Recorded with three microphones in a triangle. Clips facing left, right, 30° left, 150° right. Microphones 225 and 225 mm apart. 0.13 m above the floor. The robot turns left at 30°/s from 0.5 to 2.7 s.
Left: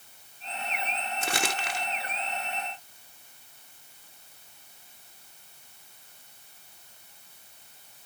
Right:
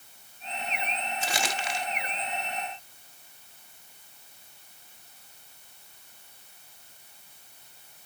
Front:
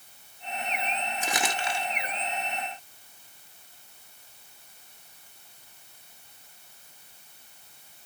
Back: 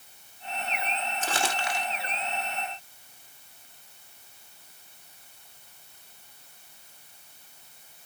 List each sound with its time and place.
1.2 s crumpling: 105° left, 1.5 m; by 1.9 s 85° left, 1.5 m